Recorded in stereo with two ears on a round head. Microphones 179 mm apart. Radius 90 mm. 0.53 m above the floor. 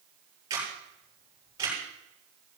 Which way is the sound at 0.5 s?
20° right (ahead or behind).